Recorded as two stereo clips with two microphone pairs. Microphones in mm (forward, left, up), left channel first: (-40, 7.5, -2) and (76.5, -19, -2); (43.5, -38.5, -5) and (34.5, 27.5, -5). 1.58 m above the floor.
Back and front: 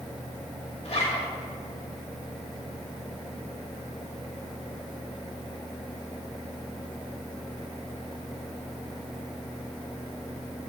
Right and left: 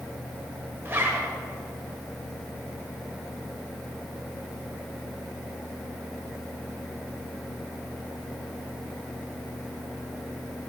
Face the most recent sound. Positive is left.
turn(degrees=150)